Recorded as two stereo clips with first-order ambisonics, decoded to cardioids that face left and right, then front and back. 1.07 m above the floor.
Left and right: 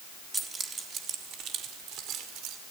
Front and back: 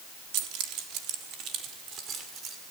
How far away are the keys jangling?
About 1.4 m.